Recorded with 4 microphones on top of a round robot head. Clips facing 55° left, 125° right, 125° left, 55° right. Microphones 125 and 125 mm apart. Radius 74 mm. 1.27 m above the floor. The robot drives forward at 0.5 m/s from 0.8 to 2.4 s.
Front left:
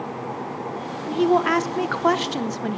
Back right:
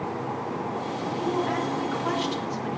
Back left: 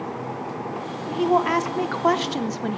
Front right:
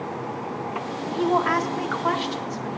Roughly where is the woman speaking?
Ahead left.